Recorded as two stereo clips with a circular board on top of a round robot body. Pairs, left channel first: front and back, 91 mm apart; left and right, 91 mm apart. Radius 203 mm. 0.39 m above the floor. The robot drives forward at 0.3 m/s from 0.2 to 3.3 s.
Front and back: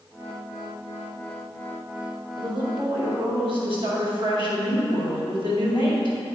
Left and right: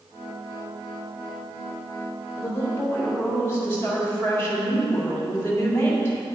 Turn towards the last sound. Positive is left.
turn(degrees=155)